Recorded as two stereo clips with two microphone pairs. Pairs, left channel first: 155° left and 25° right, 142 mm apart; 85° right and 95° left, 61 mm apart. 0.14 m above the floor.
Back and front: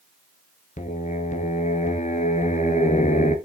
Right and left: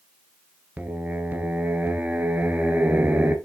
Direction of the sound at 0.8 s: 155° left.